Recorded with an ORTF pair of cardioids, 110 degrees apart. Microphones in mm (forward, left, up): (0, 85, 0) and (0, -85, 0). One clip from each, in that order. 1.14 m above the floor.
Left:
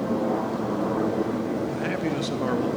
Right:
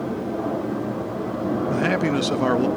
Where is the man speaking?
35° right, 1.5 m.